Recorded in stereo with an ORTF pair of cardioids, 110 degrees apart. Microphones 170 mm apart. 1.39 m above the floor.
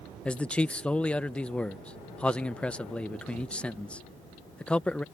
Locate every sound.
0.2 s a man speaking: 5° left